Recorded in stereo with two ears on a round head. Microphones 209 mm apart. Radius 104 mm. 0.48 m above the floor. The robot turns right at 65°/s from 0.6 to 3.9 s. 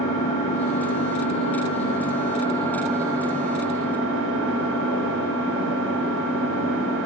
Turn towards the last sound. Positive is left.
turn(degrees=-115)